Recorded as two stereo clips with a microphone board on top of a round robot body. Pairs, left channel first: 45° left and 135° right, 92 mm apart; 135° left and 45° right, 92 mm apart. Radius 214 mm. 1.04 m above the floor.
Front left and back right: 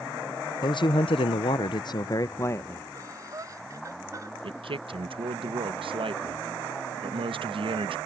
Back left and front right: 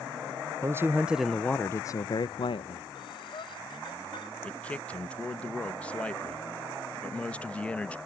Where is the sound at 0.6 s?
15° left; by 2.9 s 115° left.